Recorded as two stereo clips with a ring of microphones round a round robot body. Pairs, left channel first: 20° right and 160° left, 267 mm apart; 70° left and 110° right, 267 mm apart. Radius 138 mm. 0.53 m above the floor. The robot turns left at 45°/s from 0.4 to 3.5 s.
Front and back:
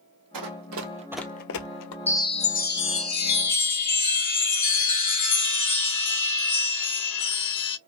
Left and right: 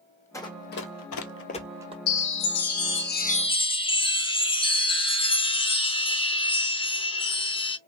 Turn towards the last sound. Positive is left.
turn(degrees=-5)